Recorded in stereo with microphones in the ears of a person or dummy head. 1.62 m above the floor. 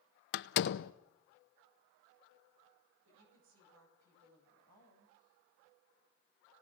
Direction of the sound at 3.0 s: 75° right (ahead or behind).